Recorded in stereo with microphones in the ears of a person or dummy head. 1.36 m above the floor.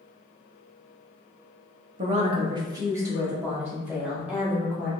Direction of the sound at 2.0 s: 40° right (ahead or behind).